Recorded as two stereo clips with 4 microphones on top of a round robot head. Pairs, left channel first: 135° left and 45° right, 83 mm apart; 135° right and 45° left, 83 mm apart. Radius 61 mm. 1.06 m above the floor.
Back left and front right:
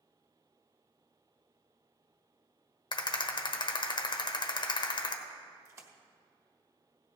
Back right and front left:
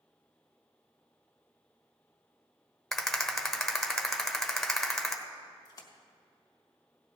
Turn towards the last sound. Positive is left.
turn(degrees=-95)